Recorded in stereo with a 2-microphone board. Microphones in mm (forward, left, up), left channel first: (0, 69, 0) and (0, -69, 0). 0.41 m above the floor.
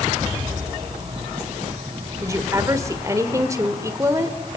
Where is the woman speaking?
25° right (ahead or behind), 1.5 m.